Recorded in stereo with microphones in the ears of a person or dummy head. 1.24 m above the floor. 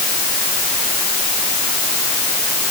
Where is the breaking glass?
I don't hear breaking glass.